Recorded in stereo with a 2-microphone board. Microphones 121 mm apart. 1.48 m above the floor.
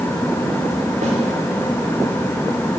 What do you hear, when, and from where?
1.0 s a snare drum: 80° right, 3 m